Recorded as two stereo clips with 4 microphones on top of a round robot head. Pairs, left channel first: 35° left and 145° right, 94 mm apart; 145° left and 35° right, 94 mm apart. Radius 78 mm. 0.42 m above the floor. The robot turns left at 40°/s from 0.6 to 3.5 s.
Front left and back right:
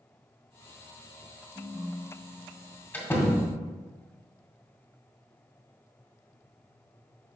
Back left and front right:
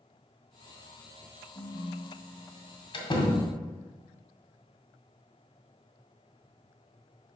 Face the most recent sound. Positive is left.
turn(degrees=85)